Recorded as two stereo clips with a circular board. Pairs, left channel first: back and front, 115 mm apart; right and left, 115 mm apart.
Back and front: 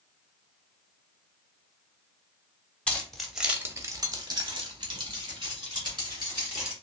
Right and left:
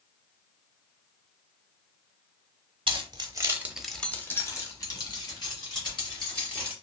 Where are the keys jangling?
105° left, 0.9 m; by 6.7 s 50° right, 2.5 m.